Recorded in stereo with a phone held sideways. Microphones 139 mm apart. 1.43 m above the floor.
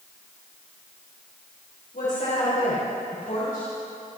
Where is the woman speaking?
80° left, 4.5 m.